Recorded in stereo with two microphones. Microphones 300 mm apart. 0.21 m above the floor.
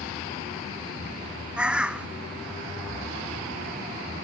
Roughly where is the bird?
Centre.